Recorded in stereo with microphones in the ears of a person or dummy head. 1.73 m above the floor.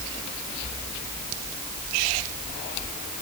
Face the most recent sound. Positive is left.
No sound to turn to.